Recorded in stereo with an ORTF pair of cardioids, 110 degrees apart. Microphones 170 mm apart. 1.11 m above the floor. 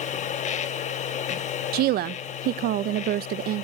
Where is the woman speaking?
65° right, 0.6 m.